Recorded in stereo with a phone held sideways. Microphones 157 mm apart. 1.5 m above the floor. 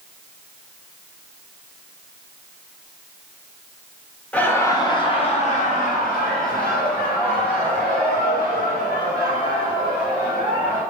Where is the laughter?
10° left (ahead or behind), 0.8 m; by 10.8 s 80° left, 3 m.